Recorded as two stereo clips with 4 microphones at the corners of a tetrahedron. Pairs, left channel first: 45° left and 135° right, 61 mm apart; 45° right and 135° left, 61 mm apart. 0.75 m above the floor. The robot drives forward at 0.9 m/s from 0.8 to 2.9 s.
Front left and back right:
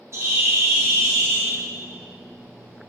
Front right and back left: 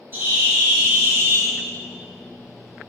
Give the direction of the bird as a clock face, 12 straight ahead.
6 o'clock.